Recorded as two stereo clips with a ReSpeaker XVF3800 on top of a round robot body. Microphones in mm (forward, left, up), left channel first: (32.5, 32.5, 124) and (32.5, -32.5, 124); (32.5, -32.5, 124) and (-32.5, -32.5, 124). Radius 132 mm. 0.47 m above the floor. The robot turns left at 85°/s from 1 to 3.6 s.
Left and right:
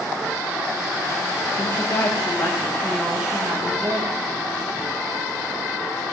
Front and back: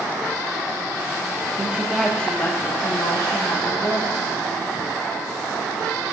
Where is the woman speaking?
130° left, 3 m; by 4.2 s 45° right, 3 m.